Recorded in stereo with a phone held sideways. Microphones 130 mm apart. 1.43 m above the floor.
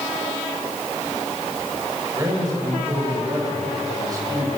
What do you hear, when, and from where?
2.1 s a man speaking: 30° right (ahead or behind), 8.5 m